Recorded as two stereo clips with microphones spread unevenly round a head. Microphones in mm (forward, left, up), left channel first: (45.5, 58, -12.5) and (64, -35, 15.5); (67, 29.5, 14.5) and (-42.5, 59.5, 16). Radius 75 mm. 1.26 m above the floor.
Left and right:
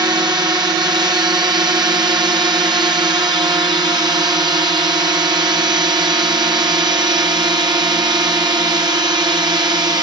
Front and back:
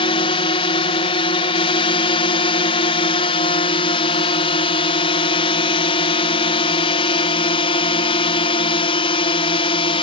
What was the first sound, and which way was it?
A drone, 30° right.